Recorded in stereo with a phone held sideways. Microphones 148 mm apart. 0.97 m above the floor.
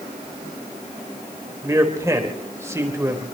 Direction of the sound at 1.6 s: 20° right (ahead or behind).